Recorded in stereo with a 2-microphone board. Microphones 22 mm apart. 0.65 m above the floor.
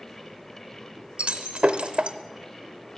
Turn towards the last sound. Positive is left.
turn(degrees=-70)  # may be behind; listen again after turning